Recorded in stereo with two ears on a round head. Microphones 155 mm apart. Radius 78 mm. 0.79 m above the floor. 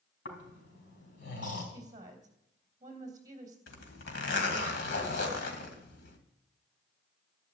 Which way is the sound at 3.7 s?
70° left (ahead or behind).